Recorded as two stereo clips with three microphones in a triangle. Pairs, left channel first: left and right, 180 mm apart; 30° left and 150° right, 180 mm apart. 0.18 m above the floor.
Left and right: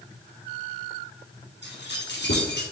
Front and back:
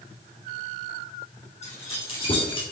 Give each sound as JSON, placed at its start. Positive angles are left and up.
{"t": 1.6, "sound": "keys jangling", "azimuth_deg": 85, "distance_m": 3.5}